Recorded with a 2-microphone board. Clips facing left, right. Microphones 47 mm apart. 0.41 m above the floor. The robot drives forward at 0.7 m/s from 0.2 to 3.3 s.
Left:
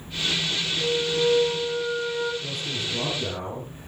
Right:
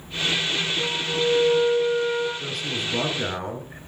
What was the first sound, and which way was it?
A flute, 70° right (ahead or behind).